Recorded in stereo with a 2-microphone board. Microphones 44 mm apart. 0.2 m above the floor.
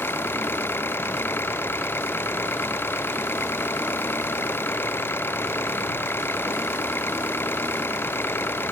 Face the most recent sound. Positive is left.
turn(degrees=65)  # may be behind; listen again after turning